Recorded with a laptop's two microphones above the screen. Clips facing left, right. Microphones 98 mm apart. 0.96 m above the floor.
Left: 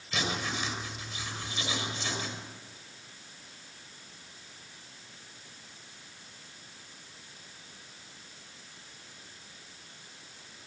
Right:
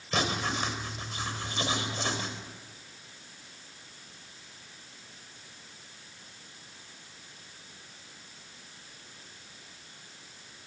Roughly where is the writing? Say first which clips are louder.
Right 3 dB; right.